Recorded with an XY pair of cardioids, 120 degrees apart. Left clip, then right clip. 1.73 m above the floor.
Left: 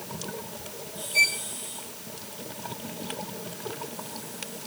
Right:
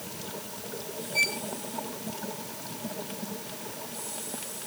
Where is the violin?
35° left.